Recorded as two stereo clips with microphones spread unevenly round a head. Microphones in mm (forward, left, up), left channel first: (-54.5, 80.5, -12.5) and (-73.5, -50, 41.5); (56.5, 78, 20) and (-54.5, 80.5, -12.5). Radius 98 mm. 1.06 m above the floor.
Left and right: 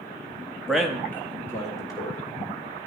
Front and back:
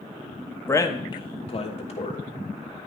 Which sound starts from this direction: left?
A man speaking, at 0.7 s.